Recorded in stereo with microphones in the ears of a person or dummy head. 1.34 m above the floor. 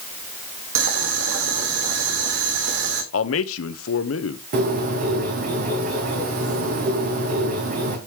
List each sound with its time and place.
0.8 s boiling: 80° right, 2.5 m
3.1 s a man speaking: 75° left (ahead or behind), 1.3 m
4.5 s a bird: 45° right (ahead or behind), 2 m